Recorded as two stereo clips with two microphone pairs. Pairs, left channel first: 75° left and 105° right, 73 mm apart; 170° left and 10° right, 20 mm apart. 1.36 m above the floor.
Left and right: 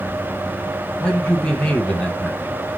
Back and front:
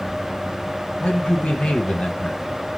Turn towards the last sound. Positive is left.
turn(degrees=150)